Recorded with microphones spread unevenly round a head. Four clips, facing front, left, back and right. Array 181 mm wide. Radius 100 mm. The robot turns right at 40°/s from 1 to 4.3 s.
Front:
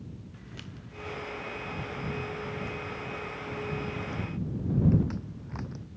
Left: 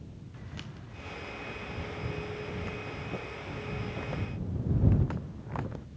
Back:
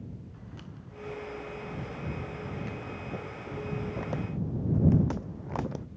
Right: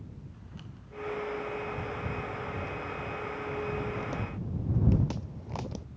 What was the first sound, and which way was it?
Footsteps, 65° left.